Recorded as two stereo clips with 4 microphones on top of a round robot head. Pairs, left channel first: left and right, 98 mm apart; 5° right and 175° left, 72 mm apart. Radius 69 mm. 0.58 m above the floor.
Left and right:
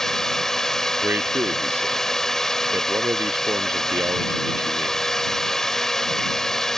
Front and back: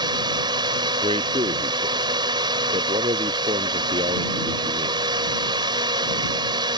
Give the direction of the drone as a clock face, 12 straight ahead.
6 o'clock.